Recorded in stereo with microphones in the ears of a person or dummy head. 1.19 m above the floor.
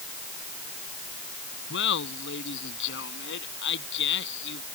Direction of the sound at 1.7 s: 65° left (ahead or behind).